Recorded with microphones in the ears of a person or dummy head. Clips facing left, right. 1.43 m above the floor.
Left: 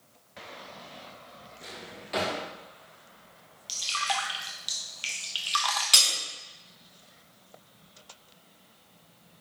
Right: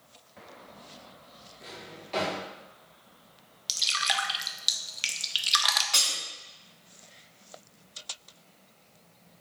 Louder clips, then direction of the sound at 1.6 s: Even; 10° left (ahead or behind).